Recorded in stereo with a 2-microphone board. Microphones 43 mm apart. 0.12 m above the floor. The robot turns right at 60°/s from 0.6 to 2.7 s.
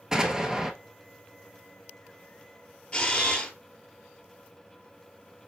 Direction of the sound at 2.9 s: 20° left (ahead or behind).